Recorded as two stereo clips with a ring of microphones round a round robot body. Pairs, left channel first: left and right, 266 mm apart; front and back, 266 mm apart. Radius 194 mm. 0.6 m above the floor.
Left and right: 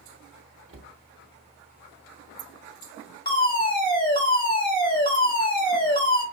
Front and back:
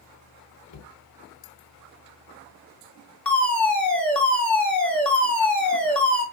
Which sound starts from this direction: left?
A fire alarm, at 3.2 s.